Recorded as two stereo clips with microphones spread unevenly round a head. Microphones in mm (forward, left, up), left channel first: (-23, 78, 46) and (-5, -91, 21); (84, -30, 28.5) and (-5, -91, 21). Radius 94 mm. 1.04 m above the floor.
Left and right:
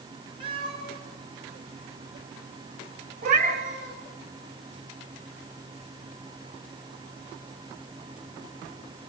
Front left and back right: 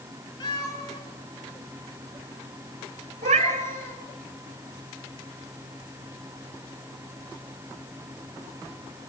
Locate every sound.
0.4 s a cat meowing: 20° right, 5.5 m; by 4.0 s 30° right, 7.5 m
3.2 s a cat meowing: 130° right, 2.0 m